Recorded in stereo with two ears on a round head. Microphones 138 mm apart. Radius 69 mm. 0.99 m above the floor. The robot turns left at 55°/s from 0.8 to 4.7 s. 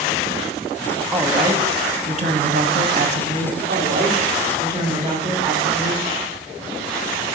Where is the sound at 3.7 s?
100° right, 2.0 m; by 6.0 s 155° right, 2.0 m.